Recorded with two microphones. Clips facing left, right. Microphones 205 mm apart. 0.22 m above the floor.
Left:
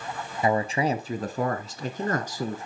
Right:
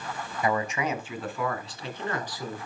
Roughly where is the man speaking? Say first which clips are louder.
Left 4 dB; left.